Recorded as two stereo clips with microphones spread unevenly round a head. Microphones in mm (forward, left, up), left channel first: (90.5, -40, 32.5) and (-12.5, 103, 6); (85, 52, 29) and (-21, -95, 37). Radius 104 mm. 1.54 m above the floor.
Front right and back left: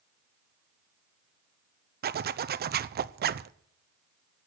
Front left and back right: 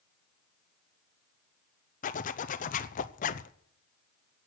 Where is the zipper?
100° left, 0.6 m.